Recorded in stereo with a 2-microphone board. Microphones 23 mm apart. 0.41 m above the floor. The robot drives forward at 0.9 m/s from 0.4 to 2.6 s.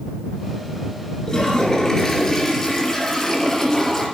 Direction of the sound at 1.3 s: 30° left (ahead or behind).